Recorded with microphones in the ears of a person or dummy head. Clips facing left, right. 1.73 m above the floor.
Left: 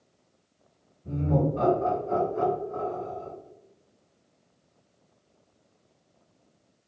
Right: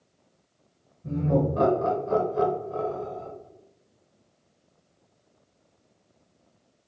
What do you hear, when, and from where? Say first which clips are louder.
1.0 s laughter: right 2 dB; 75° right (ahead or behind), 1.8 m; by 3.3 s 20° right (ahead or behind), 1.0 m